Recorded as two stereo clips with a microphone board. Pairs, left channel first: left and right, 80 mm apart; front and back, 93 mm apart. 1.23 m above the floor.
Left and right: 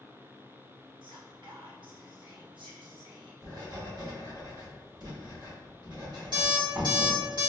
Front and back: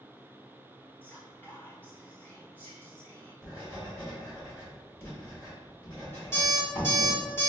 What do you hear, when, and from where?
1.0 s whispering: 70° right, 1.1 m
3.4 s writing: 60° right, 1.9 m
6.3 s an alarm clock: 65° right, 2.0 m